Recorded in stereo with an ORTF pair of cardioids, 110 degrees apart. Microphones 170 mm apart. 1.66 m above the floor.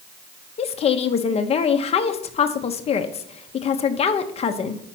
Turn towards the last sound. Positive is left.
turn(degrees=40)